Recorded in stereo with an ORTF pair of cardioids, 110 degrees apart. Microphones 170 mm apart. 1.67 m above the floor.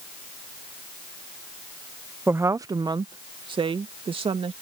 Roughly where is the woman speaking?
Ahead.